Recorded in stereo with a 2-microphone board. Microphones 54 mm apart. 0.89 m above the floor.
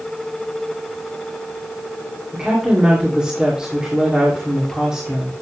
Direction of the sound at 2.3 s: 15° right (ahead or behind).